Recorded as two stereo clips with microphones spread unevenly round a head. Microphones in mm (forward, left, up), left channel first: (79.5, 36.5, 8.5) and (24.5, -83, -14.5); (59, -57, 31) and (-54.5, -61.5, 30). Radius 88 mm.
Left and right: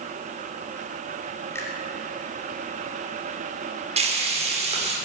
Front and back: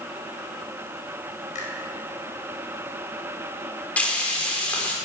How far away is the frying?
About 4.5 m.